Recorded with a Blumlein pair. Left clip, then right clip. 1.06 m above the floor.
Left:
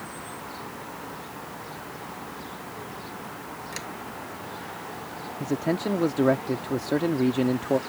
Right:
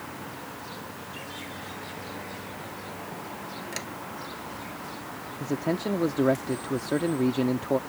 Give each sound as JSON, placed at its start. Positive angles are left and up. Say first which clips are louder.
{"t": 3.7, "sound": "a sliding door", "louder": "even", "azimuth_deg": -5}
{"t": 5.4, "sound": "a man speaking", "louder": "left 2 dB", "azimuth_deg": 5}